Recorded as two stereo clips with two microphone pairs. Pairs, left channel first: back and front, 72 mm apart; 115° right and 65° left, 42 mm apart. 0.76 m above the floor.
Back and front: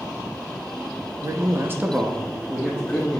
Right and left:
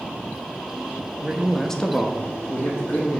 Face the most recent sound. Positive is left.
turn(degrees=-110)